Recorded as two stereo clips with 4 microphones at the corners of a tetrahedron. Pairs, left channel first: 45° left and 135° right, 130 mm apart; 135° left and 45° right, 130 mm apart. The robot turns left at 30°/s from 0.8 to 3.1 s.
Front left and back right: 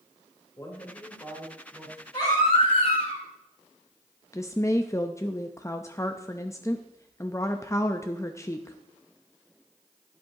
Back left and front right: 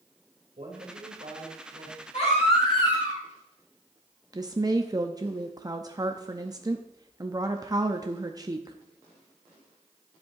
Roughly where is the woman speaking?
Ahead.